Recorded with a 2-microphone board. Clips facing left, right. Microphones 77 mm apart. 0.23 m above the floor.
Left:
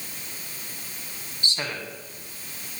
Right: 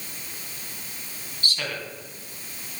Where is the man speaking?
20° left (ahead or behind), 1.7 m.